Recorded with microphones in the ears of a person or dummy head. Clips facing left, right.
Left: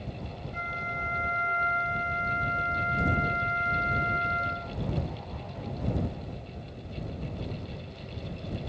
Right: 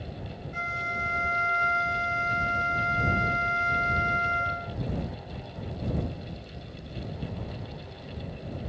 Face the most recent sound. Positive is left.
turn(degrees=-55)  # may be behind; listen again after turning